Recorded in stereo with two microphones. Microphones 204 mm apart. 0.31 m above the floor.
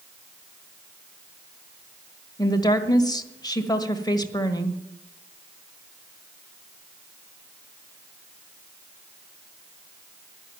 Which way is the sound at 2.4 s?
20° left (ahead or behind).